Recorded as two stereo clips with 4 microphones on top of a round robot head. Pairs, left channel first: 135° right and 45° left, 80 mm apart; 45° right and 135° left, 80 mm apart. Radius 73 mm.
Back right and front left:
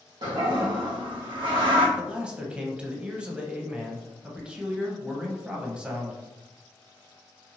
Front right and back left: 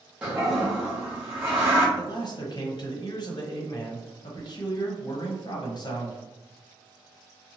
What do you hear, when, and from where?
0.2 s a toilet flushing: 60° left, 1.1 m
2.0 s a man speaking: 35° right, 0.9 m